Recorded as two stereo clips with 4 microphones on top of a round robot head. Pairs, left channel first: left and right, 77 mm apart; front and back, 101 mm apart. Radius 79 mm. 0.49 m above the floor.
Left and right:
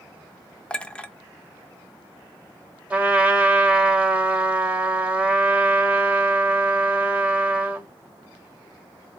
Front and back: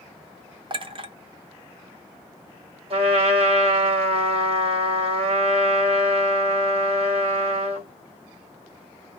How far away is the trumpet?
About 1.3 m.